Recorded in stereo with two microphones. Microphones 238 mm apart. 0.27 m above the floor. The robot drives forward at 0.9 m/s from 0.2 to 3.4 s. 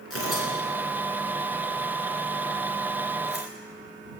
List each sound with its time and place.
0.1 s tearing paper: 70° left (ahead or behind), 3 m; by 3.5 s 45° left (ahead or behind), 4 m